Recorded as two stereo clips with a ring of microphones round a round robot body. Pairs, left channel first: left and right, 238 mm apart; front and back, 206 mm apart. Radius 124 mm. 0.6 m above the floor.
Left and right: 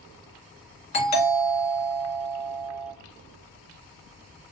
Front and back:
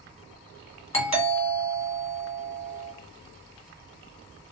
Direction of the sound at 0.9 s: 45° left.